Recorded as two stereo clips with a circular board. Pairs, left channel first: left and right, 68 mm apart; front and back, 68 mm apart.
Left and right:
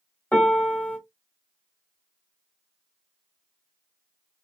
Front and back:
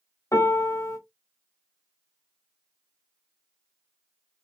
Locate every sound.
0.3 s a piano: 25° left, 1.5 m